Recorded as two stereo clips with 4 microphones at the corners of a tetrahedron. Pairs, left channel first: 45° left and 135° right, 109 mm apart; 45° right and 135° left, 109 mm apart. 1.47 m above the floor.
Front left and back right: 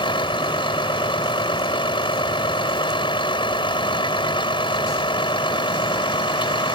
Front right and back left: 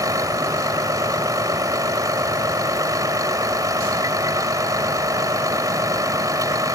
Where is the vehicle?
80° left.